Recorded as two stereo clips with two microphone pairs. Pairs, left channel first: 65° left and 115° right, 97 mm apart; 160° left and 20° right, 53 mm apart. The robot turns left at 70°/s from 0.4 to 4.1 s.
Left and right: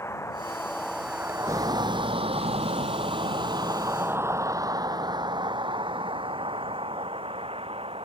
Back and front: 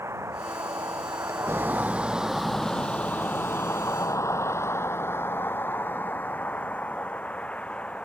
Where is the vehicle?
5° left; by 8.1 s 130° right.